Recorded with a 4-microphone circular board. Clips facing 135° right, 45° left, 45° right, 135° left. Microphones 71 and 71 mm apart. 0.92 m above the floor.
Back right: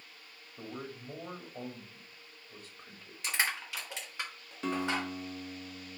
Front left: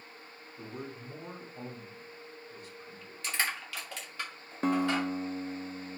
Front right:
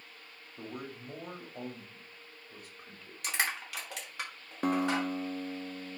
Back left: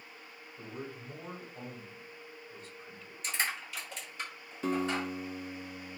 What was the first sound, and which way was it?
A man speaking, 85° right.